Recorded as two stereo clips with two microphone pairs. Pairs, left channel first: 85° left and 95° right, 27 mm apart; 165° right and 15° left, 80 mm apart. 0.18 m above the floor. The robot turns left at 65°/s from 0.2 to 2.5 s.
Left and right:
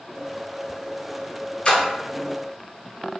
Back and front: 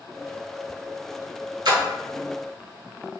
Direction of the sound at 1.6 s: 40° left.